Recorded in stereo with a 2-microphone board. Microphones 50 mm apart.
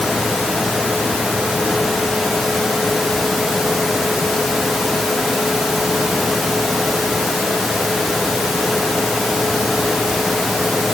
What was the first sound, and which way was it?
Only background noise.